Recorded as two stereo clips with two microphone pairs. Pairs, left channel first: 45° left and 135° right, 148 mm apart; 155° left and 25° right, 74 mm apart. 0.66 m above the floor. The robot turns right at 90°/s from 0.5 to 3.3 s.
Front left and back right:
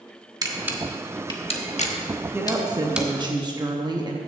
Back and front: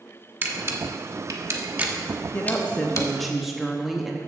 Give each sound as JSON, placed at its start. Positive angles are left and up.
{"t": 0.4, "sound": "a camera shutter", "azimuth_deg": -80, "distance_m": 1.1}
{"t": 2.3, "sound": "a woman speaking", "azimuth_deg": 160, "distance_m": 0.7}